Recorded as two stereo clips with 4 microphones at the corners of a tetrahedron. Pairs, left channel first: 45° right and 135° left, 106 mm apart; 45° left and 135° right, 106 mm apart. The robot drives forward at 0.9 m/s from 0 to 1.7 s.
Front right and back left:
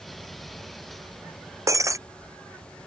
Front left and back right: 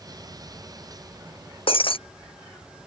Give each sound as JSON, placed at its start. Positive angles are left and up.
{"t": 1.7, "sound": "breaking glass", "azimuth_deg": 75}